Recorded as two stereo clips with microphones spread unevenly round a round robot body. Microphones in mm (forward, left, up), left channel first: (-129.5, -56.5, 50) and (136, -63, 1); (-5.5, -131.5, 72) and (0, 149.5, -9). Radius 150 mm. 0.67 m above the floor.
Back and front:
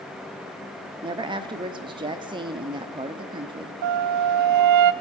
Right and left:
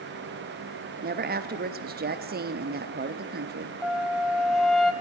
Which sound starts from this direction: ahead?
A flute, at 3.8 s.